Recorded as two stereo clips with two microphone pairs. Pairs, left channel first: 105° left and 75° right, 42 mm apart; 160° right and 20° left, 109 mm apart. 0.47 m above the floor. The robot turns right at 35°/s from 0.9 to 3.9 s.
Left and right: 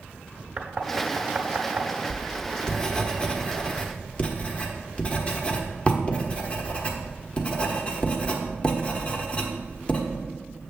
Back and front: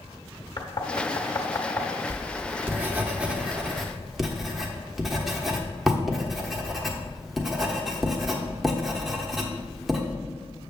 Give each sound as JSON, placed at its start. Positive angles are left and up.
{"t": 0.6, "sound": "knocking", "azimuth_deg": -130, "distance_m": 1.1}
{"t": 2.1, "sound": "writing", "azimuth_deg": 45, "distance_m": 1.1}